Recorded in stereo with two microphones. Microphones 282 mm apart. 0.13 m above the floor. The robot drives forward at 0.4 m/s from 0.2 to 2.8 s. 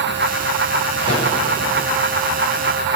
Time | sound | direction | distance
1.0 | a microwave | 40° left (ahead or behind) | 5 m